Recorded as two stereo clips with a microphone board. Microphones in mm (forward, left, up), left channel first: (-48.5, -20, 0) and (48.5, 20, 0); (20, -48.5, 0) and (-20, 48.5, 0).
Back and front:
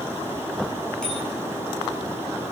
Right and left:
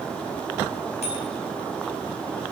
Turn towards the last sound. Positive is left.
turn(degrees=-75)